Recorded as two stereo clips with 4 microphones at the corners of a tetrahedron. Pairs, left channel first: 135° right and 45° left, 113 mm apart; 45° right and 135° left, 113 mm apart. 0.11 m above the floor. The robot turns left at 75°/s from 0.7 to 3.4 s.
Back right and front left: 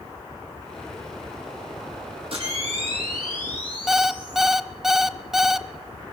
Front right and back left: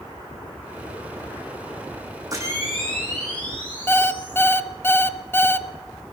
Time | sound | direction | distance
2.3 | a camera shutter | 80° left | 6 m
3.9 | an alarm clock | 40° right | 0.8 m